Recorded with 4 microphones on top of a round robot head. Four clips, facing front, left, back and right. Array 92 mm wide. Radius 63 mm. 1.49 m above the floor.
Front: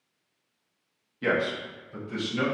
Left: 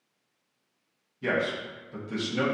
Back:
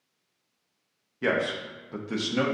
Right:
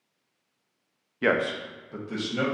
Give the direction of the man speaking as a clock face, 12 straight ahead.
3 o'clock.